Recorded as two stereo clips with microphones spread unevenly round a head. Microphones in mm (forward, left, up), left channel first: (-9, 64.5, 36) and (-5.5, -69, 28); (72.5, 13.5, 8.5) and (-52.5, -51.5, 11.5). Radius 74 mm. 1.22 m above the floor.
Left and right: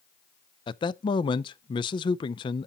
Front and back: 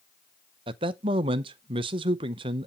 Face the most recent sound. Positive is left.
turn(degrees=150)